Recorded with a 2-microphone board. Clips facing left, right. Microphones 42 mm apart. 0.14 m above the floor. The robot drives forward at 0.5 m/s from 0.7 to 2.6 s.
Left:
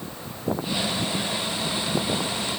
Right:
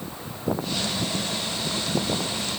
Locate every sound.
Only background noise.